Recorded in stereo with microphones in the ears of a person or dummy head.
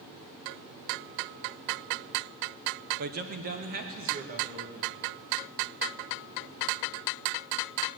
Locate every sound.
3.0 s a man speaking: 50° right (ahead or behind), 1.1 m; by 5.0 s 40° right (ahead or behind), 2.5 m